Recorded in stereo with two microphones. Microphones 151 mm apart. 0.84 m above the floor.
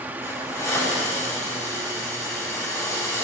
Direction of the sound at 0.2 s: 20° left (ahead or behind).